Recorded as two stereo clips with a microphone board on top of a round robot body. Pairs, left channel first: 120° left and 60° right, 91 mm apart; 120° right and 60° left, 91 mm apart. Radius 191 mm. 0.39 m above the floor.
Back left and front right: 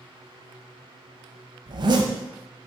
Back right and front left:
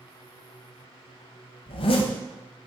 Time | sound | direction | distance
1.7 | a zipper | 100° right | 0.7 m